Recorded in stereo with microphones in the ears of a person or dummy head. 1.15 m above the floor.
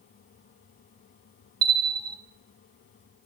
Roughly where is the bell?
Centre.